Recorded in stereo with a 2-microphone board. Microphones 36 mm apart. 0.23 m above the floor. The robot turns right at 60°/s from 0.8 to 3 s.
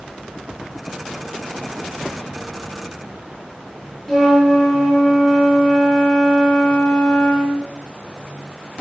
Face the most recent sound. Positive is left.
turn(degrees=5)  # may be behind; listen again after turning